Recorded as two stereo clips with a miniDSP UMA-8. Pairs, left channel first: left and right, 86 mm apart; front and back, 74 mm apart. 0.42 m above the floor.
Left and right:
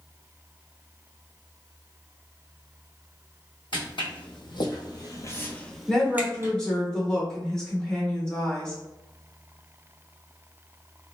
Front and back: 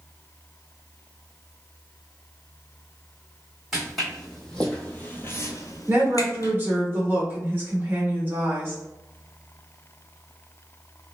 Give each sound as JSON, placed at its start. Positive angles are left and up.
{"t": 3.7, "sound": "footsteps", "azimuth_deg": 90, "distance_m": 1.6}
{"t": 5.9, "sound": "a woman speaking", "azimuth_deg": 160, "distance_m": 1.2}